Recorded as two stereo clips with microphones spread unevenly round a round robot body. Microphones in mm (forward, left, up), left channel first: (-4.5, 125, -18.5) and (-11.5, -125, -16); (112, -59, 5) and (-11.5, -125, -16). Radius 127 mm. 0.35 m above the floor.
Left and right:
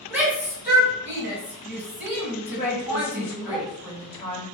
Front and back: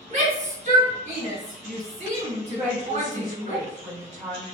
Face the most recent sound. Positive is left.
turn(degrees=-170)